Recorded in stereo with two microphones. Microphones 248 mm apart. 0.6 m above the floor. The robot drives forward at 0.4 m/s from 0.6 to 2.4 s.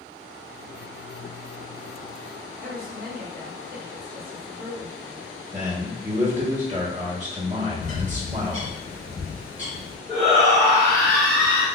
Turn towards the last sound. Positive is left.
turn(degrees=0)  # may be behind; listen again after turning